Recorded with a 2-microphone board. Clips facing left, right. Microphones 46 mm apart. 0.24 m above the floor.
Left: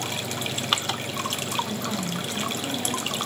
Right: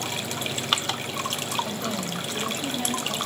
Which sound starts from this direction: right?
A woman speaking, at 1.6 s.